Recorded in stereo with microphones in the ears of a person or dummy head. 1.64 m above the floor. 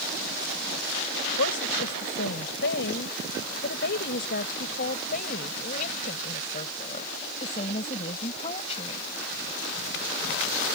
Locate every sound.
1.2 s a woman speaking: 75° left (ahead or behind); by 9.0 s 35° left (ahead or behind)